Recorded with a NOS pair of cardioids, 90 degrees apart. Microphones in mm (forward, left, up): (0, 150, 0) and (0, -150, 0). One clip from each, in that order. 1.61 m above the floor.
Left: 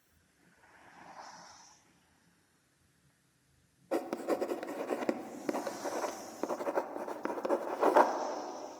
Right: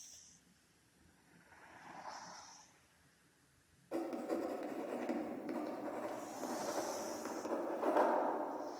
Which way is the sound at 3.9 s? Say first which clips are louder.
Left 6 dB; 50° left.